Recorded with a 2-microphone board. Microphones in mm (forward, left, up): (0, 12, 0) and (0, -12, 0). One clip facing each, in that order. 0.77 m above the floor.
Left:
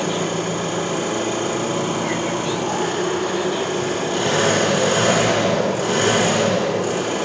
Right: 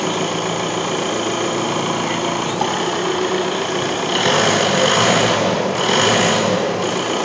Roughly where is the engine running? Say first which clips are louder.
Right 2 dB; right.